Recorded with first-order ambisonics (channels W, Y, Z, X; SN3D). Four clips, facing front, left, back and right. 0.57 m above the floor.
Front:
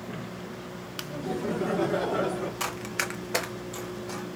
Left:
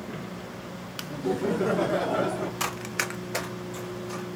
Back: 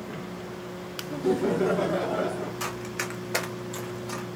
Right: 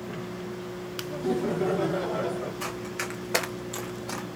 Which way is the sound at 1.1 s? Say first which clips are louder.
Left 1 dB, back 6 dB; 165° right.